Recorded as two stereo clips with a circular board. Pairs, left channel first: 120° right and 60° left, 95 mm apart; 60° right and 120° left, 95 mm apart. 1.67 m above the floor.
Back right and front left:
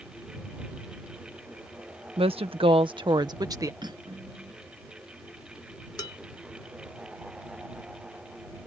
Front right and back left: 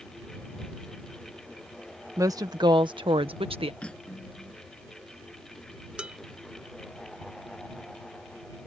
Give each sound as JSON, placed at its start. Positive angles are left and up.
{"t": 2.2, "sound": "a woman speaking", "azimuth_deg": 65}
{"t": 3.8, "sound": "cutlery clinking", "azimuth_deg": 20}
{"t": 6.0, "sound": "dishes clattering", "azimuth_deg": -160}